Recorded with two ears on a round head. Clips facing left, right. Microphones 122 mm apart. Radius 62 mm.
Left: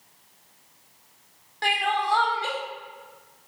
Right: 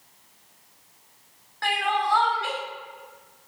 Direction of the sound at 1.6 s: 25° left (ahead or behind).